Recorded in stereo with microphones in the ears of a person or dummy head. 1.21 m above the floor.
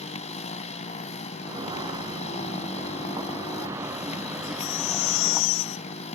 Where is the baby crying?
75° left (ahead or behind).